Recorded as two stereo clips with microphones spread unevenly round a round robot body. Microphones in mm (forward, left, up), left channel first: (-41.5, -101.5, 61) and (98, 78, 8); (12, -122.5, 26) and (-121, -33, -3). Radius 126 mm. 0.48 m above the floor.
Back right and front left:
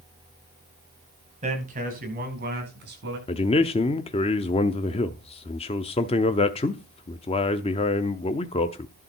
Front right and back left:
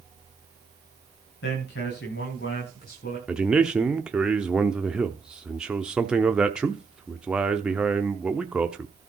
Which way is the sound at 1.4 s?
Straight ahead.